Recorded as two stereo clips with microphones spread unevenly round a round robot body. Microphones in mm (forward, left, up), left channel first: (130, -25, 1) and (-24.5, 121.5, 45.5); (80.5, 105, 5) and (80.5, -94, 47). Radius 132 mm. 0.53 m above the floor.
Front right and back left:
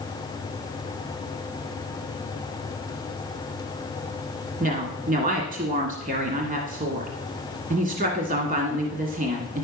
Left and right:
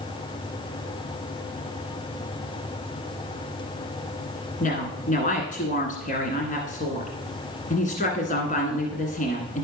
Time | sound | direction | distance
4.6 | a woman speaking | 85° left | 1.8 m